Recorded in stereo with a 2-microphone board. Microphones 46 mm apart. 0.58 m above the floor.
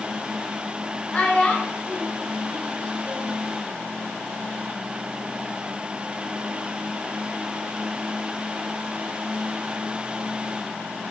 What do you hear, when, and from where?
1.1 s a child speaking: 20° left (ahead or behind), 3.5 m